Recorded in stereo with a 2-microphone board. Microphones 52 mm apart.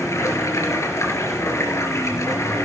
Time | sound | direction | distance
0.0 | running water | 65° left (ahead or behind) | 3 m